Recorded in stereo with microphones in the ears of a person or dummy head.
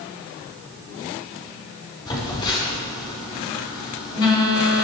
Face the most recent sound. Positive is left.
turn(degrees=25)  # may be behind; listen again after turning